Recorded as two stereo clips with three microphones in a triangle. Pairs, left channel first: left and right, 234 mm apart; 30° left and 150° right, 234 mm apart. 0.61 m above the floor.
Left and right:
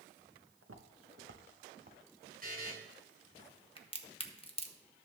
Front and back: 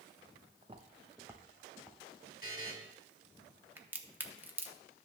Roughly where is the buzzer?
Left.